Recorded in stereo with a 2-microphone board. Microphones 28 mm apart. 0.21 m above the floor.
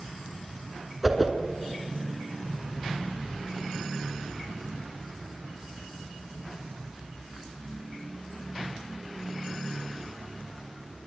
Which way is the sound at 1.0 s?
10° right (ahead or behind).